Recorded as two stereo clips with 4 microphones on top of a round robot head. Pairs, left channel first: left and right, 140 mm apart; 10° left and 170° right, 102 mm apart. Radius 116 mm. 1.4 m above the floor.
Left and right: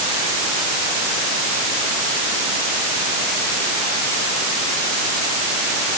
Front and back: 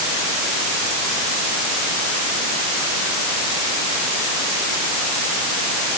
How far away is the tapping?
No tapping in this recording.